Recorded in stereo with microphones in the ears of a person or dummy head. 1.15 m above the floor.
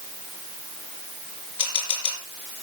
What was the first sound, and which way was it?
A camera shutter, 30° left (ahead or behind).